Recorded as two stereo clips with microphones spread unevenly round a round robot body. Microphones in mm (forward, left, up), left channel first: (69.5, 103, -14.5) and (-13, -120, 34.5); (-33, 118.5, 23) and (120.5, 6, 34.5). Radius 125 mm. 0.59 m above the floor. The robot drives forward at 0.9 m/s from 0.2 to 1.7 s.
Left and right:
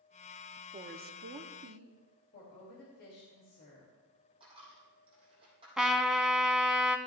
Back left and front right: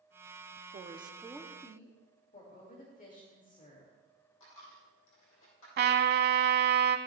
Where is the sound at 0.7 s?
50° right, 0.8 m; by 2.0 s 145° right, 1.0 m.